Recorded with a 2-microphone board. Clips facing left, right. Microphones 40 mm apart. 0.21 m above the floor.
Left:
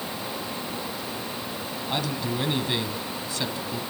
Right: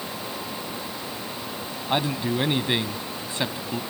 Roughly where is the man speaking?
Right.